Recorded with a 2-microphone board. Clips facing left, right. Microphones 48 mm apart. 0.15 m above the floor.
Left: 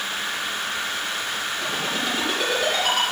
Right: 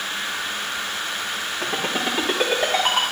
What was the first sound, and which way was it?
A ringtone, 30° right (ahead or behind).